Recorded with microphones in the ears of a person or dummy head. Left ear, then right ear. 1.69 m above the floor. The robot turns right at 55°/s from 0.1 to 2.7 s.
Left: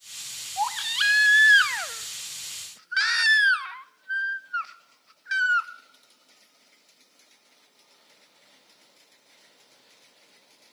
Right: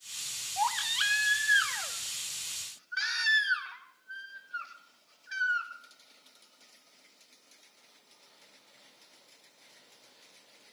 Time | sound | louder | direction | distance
0.6 | a baby crying | left 4 dB | 10° right | 0.8 m